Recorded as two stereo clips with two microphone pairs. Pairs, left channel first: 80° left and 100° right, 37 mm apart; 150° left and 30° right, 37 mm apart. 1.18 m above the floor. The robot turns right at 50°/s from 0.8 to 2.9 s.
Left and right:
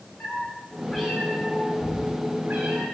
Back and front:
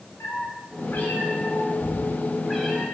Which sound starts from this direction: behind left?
A cat meowing, at 0.2 s.